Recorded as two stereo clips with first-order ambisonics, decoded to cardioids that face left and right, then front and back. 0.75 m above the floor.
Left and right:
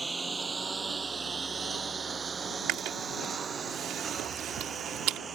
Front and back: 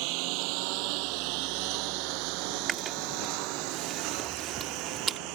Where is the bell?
No bell in this recording.